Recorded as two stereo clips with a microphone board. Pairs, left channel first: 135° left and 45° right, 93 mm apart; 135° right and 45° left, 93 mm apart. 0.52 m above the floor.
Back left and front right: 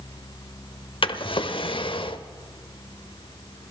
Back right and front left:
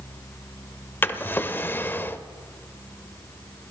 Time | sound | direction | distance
1.0 | a drawer | 160° left | 0.7 m